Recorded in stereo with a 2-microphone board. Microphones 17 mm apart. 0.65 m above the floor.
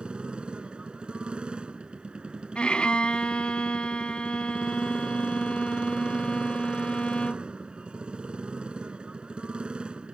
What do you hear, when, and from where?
0.0 s a motorcycle: 55° right (ahead or behind)
2.5 s a violin: 65° left (ahead or behind)